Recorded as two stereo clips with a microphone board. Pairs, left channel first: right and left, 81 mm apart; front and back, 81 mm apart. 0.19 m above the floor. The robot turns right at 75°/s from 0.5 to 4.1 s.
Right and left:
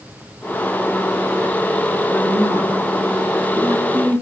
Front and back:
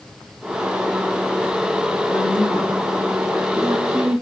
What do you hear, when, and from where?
2.1 s a woman speaking: 10° left, 2.5 m; by 4.2 s 160° left, 2.5 m